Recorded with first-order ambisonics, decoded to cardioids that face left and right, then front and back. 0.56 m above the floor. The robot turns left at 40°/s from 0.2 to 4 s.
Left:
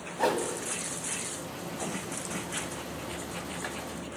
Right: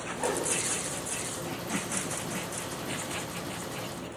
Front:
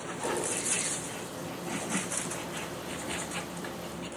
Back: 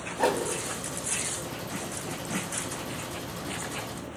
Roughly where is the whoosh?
Behind left.